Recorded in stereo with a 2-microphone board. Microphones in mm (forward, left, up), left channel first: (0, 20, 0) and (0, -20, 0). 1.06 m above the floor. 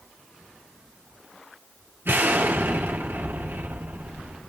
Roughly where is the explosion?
Right.